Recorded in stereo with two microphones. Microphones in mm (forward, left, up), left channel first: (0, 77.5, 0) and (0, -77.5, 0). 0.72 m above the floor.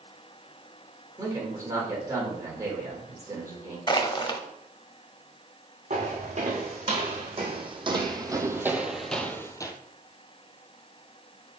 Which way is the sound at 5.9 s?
50° right (ahead or behind).